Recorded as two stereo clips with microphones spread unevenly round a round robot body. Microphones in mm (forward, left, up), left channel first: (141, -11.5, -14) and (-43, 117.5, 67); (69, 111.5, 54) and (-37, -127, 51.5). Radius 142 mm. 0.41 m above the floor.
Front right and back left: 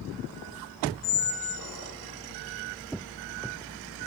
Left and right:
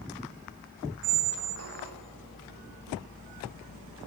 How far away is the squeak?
About 1.8 m.